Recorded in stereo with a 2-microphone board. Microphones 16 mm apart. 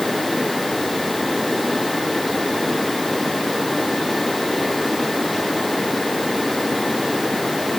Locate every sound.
Only background noise.